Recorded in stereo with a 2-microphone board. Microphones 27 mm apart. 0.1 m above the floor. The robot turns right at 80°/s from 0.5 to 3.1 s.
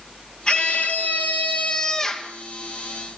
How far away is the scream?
About 3 m.